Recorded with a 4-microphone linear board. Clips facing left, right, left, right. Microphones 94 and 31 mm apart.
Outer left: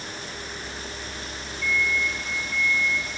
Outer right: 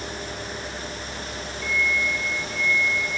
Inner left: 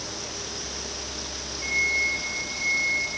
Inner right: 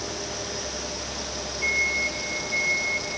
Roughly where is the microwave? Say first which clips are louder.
Even, even; right.